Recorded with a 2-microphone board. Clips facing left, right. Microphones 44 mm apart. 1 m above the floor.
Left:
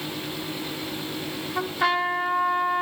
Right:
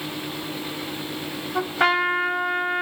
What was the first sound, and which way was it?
A trumpet, 85° right.